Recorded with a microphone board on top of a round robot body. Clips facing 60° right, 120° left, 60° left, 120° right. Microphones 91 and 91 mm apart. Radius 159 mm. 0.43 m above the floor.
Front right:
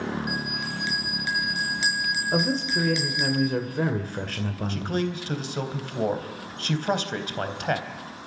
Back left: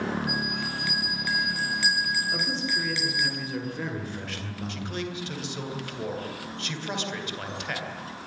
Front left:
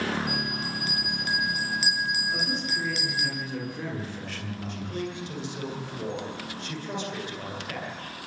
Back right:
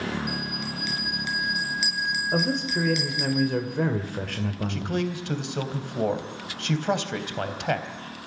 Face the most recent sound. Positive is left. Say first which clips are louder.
# front right 6 dB, back right 3 dB
turn(degrees=-105)